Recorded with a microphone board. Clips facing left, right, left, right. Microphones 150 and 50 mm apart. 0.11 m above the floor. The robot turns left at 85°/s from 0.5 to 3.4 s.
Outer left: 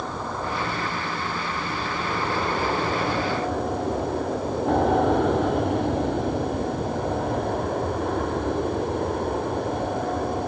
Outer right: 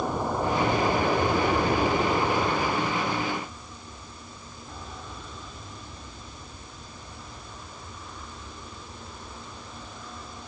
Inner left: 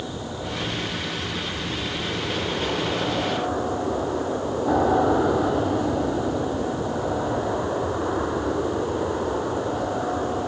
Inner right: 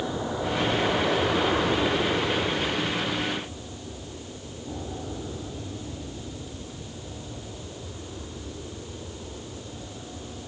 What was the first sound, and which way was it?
An aircraft, 15° right (ahead or behind).